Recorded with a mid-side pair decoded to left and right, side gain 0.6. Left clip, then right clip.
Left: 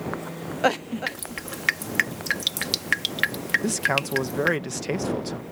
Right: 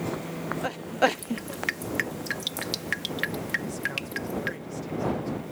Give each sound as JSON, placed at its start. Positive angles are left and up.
{"t": 1.1, "sound": "dripping", "azimuth_deg": 35}
{"t": 3.6, "sound": "a man speaking", "azimuth_deg": 70}